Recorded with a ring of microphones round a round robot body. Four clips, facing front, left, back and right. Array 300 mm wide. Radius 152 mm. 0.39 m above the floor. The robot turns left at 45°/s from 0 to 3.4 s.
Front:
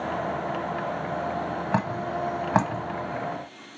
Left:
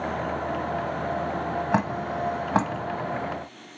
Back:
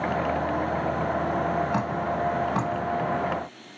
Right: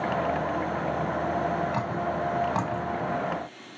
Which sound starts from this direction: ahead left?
Dripping, at 1.7 s.